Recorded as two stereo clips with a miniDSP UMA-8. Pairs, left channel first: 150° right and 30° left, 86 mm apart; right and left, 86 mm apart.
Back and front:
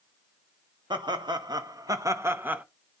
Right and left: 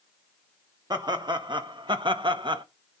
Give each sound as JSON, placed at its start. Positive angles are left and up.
{"t": 0.9, "sound": "laughter", "azimuth_deg": 60, "distance_m": 1.3}